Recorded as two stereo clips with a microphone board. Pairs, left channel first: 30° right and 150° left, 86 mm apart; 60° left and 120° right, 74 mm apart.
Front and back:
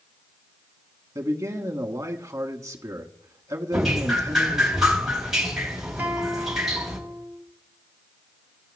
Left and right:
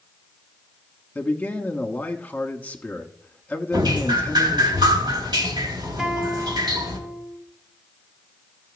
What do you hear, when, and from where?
1.1 s a man speaking: 120° left, 1.3 m
3.7 s dripping: 125° right, 3 m
6.0 s a guitar: 160° left, 1.2 m